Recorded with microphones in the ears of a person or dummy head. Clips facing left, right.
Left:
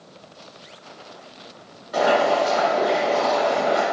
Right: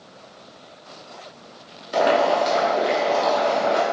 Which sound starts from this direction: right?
Boiling, at 1.9 s.